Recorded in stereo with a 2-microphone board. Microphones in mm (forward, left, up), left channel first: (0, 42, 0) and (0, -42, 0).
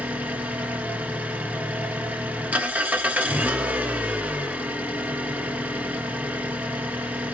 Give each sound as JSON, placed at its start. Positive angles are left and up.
{"t": 0.0, "sound": "an engine running", "side_deg": -20, "distance_m": 0.8}